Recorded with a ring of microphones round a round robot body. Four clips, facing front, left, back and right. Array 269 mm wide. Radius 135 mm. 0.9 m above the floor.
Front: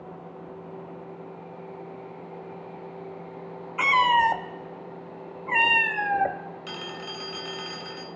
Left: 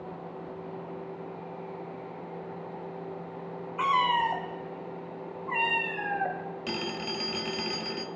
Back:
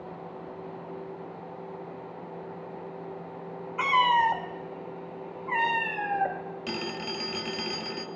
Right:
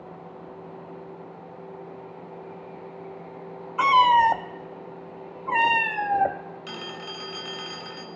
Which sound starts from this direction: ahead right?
A cat meowing, at 3.8 s.